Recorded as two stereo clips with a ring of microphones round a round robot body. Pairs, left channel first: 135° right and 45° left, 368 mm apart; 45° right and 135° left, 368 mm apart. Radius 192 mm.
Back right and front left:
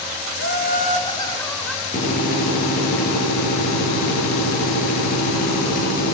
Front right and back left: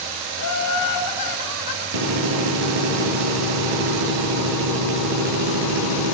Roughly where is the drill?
Behind left.